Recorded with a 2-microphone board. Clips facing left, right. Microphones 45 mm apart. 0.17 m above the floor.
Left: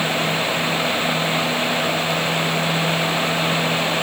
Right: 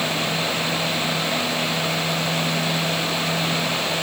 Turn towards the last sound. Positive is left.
No sound to turn to.